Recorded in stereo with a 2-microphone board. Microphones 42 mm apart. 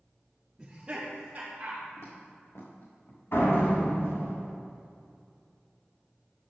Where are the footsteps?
75° left (ahead or behind), 3 m; by 3.2 s 80° left, 3.5 m.